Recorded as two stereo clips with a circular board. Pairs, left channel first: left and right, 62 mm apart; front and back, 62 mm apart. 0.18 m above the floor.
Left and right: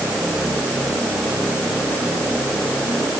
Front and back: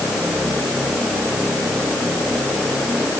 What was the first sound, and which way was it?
Only background noise.